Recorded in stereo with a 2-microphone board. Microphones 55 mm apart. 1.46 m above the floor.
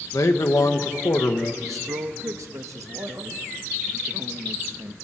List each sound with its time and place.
0.1 s a man speaking: 70° left (ahead or behind), 1.4 m
1.6 s a man speaking: 75° right (ahead or behind), 1.5 m